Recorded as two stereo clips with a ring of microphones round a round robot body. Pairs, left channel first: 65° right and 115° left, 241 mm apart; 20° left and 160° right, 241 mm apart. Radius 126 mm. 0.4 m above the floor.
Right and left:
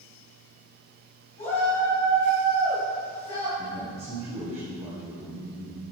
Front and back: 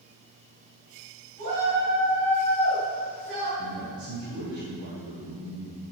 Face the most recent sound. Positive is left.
turn(degrees=175)